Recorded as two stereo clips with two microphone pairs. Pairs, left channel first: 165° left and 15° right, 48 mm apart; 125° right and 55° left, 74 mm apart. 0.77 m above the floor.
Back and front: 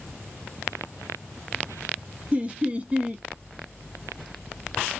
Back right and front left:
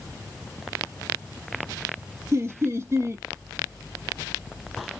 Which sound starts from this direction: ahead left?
Laughter, at 2.3 s.